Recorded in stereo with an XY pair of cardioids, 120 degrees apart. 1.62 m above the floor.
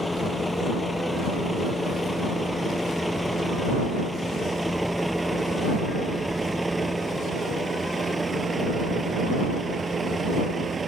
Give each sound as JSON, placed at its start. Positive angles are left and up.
{"t": 0.0, "sound": "a vehicle", "azimuth_deg": 10}